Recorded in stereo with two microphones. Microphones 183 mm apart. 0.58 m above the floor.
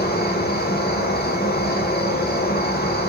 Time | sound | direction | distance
0.0 | an insect | 60° left (ahead or behind) | 1.0 m